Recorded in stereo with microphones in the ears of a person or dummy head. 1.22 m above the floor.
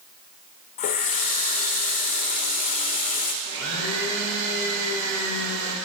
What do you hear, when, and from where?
0.8 s a running tap: 40° left (ahead or behind), 1.0 m
3.4 s a blender: 60° right (ahead or behind), 2.5 m